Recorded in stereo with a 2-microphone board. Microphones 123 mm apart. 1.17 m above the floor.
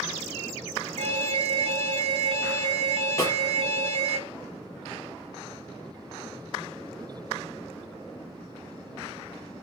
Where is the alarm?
60° right (ahead or behind), 1.3 m.